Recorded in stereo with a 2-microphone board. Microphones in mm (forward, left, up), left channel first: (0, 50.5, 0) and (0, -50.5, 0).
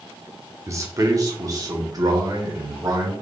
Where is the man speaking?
30° right (ahead or behind), 0.9 m; by 3.1 s 40° right (ahead or behind), 2 m.